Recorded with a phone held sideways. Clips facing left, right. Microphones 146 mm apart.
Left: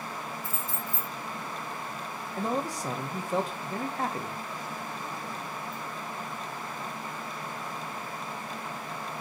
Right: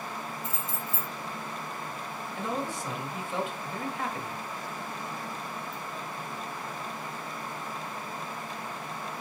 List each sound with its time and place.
0.4 s keys jangling: 20° right (ahead or behind), 0.6 m
2.4 s a man speaking: 40° left (ahead or behind), 0.8 m